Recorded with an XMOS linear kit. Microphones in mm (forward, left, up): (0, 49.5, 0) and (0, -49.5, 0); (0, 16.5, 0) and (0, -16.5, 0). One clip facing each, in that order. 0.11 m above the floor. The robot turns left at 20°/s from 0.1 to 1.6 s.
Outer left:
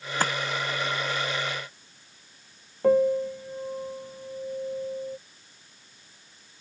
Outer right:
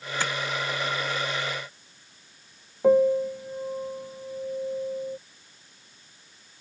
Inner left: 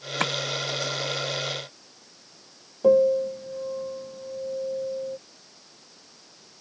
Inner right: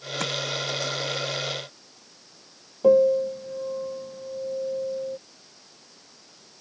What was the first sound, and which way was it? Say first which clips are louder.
Tapping: outer left 4 dB, inner left 4 dB; 40° left (ahead or behind).